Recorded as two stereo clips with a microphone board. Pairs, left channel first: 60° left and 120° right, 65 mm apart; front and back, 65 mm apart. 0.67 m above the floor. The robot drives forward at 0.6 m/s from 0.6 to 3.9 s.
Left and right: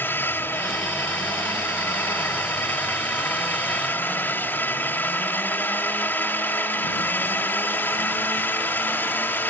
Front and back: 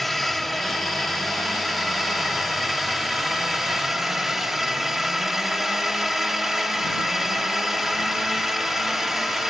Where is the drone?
85° left; by 9.5 s 95° left.